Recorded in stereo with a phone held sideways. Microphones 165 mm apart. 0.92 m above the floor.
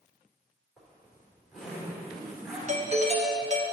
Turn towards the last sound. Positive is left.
turn(degrees=-40)  # may be behind; listen again after turning